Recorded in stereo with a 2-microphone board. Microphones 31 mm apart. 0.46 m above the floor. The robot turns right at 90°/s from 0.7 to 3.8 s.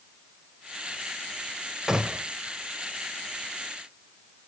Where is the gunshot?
160° right, 0.6 m; by 2.2 s 130° right, 0.6 m.